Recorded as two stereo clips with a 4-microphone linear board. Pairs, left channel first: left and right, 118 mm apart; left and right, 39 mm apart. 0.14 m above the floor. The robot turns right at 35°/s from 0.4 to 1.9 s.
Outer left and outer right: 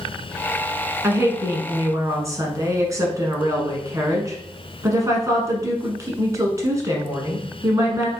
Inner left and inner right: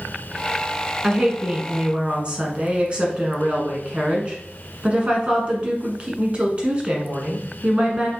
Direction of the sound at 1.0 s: 20° right (ahead or behind).